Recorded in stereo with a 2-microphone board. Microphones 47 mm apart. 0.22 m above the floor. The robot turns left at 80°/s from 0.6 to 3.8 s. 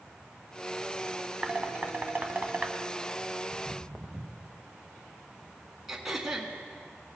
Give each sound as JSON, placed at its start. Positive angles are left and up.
{"t": 1.4, "sound": "dishes clattering", "side_deg": -20, "distance_m": 0.9}
{"t": 3.5, "sound": "footsteps", "side_deg": 10, "distance_m": 0.8}
{"t": 5.9, "sound": "throat clearing", "side_deg": -10, "distance_m": 1.4}